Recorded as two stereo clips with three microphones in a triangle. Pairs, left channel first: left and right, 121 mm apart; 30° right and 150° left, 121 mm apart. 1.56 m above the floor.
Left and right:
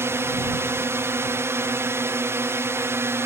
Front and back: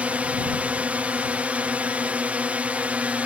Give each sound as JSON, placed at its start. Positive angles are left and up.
{"t": 0.0, "sound": "a drone", "azimuth_deg": -140}